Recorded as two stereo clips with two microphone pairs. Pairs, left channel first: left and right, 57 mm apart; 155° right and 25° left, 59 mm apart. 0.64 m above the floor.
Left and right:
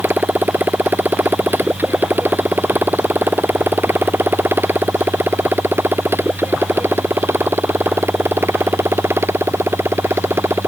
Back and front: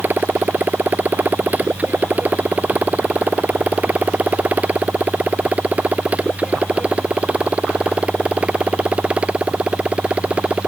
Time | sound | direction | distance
0.0 | a motorcycle | 35° right | ?